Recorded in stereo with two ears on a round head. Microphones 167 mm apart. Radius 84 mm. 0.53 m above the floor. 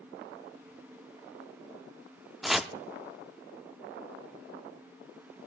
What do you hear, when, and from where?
2.4 s chopping: centre (ahead or behind), 0.5 m